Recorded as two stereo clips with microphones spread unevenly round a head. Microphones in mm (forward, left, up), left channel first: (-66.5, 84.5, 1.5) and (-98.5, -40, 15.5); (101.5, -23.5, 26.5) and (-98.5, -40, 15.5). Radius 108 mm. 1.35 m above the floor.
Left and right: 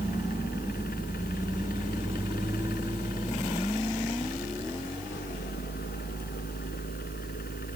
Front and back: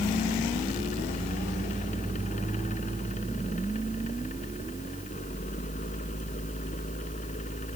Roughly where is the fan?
Ahead left.